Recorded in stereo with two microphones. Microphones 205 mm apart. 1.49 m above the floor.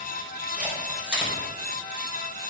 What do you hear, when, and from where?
0.5 s a camera shutter: 5° right (ahead or behind), 5 m